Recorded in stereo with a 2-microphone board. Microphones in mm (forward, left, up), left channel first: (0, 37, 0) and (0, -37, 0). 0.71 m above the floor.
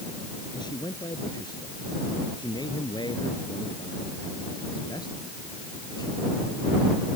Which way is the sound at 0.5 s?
80° left.